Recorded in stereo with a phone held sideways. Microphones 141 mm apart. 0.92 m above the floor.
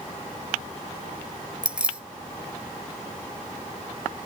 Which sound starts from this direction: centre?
Keys jangling, at 1.6 s.